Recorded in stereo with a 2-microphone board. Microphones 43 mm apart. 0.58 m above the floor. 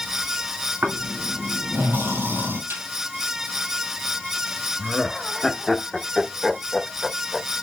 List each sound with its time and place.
0.8 s snoring: 70° right (ahead or behind), 3.5 m
2.7 s a snare drum: 70° right (ahead or behind), 3 m
4.8 s laughter: centre (ahead or behind), 0.7 m